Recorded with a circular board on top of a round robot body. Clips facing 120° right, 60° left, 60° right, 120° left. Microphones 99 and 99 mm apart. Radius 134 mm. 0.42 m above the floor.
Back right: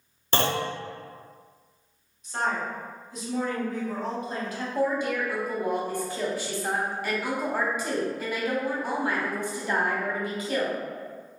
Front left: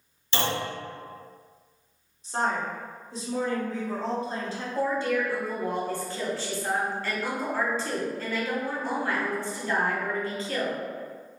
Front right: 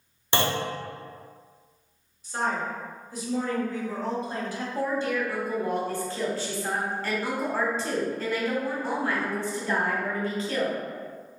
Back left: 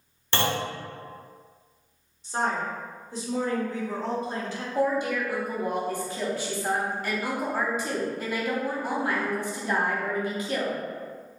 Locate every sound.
0.3 s a clunk: 125° right, 0.7 m
2.2 s a woman speaking: 85° left, 1.1 m
4.8 s a woman speaking: straight behind, 1.0 m